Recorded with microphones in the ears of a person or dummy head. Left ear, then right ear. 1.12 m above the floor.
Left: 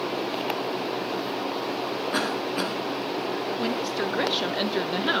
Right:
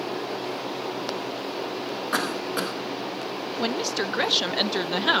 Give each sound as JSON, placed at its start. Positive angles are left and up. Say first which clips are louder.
{"t": 2.1, "sound": "a cough", "louder": "right 2 dB", "side_deg": -50, "distance_m": 2.5}
{"t": 3.6, "sound": "a woman speaking", "louder": "right 1 dB", "side_deg": -25, "distance_m": 0.6}